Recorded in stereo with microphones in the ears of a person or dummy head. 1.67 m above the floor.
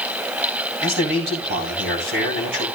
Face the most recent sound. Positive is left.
turn(degrees=-65)  # may be behind; listen again after turning